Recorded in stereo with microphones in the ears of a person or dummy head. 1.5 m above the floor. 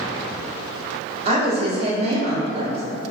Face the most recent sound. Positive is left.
turn(degrees=-40)  # may be behind; listen again after turning